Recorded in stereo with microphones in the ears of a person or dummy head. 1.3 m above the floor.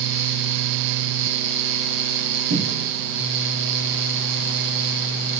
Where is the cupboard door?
60° right (ahead or behind), 0.8 m.